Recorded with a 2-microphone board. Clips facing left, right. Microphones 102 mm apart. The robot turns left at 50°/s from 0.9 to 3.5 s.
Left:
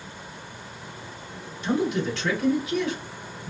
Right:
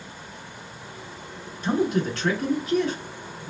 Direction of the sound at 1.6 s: 65° right.